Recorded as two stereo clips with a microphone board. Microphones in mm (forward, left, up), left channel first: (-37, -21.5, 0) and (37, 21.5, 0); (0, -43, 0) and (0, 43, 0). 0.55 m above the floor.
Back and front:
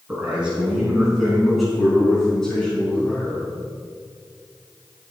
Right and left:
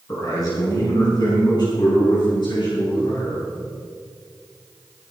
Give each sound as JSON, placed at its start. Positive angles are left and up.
{"t": 0.1, "sound": "a man speaking", "azimuth_deg": -45, "distance_m": 5.0}